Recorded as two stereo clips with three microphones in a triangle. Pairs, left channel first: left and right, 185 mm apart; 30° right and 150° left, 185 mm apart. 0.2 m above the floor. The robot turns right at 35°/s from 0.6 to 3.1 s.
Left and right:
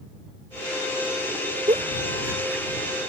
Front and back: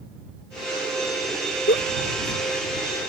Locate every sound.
1.7 s a giggle: 35° right; by 3.0 s 10° left